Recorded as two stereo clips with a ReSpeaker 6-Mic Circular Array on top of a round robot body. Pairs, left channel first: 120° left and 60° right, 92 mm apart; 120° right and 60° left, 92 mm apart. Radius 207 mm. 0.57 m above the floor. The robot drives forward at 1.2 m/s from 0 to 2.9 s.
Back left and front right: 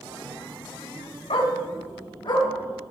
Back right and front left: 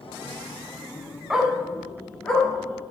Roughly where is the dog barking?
Behind left.